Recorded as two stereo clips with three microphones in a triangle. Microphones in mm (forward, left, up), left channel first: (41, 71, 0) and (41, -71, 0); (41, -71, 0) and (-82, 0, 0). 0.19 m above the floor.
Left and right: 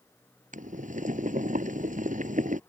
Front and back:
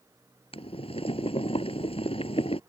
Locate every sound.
0.5 s boiling: 75° right